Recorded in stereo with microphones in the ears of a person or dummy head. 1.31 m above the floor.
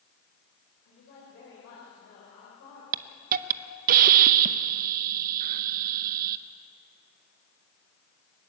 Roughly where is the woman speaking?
Left.